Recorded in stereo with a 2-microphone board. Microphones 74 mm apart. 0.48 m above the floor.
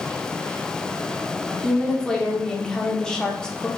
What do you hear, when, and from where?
1.5 s a woman speaking: 10° left (ahead or behind), 0.9 m